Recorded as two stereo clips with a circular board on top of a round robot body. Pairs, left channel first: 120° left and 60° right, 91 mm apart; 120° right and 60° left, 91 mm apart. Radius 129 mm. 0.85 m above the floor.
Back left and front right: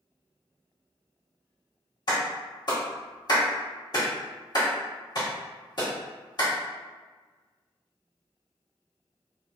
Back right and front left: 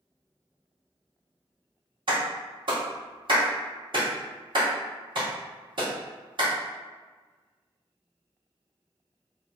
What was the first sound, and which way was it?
A clap, 85° left.